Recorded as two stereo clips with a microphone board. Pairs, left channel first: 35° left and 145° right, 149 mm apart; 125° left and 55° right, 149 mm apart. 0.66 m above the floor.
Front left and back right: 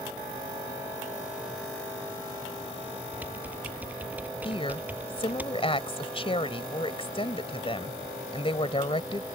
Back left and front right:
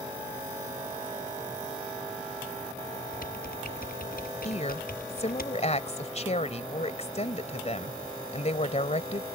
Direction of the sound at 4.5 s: 85° left.